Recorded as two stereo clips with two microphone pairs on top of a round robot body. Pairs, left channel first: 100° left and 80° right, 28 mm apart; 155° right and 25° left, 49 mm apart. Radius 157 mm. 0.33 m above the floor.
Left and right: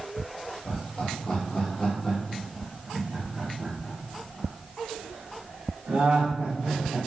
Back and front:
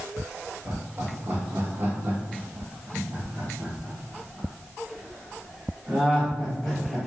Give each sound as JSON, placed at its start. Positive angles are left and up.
{"t": 0.7, "sound": "laughter", "azimuth_deg": 60, "distance_m": 2.0}